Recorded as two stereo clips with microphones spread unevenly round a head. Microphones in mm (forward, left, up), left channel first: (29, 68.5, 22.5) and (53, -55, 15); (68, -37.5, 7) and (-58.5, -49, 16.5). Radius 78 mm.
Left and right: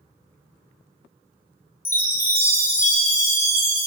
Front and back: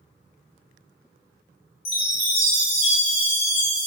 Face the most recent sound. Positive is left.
turn(degrees=30)